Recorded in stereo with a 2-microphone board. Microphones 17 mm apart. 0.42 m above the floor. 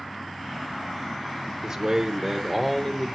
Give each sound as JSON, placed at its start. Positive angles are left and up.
{"t": 1.6, "sound": "a man speaking", "side_deg": -35, "distance_m": 1.0}